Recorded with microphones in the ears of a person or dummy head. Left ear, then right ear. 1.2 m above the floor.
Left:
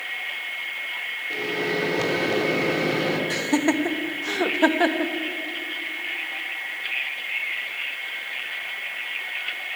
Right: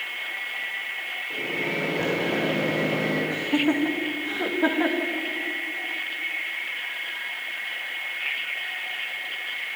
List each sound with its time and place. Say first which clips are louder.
1.3 s a microwave: left 2 dB; 65° left (ahead or behind), 3.5 m
3.3 s laughter: left 1 dB; 80° left, 1.7 m